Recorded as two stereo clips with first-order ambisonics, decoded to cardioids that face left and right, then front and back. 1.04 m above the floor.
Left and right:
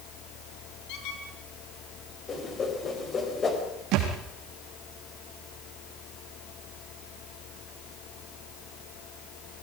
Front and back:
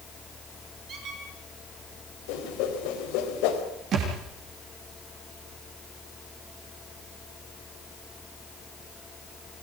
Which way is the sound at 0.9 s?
115° left.